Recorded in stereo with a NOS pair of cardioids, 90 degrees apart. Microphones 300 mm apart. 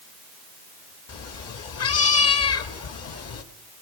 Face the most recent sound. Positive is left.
turn(degrees=55)